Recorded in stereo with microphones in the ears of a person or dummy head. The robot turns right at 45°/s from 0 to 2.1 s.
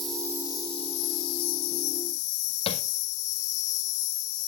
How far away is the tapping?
About 1.1 m.